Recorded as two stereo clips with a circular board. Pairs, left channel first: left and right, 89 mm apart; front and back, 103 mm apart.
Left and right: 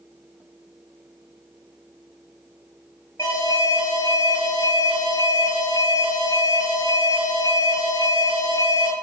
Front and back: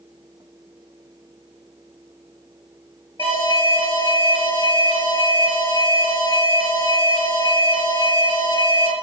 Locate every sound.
3.2 s an alarm: 35° left, 3.5 m